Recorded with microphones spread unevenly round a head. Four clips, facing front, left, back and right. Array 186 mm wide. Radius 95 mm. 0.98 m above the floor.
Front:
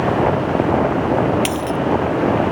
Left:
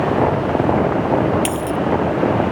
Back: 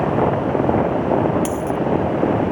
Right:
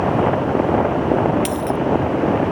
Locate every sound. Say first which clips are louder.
1.4 s a dropped coin: even, front 1 dB; 5° left